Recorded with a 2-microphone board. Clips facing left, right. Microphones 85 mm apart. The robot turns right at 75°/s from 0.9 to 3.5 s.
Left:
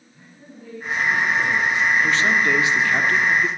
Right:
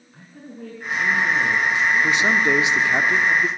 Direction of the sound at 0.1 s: 115° right.